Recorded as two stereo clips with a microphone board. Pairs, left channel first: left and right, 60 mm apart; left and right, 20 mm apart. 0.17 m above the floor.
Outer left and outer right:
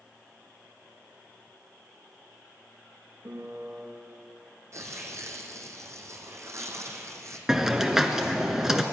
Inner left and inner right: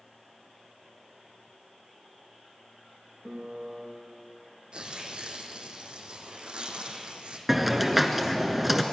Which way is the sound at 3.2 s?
65° right (ahead or behind).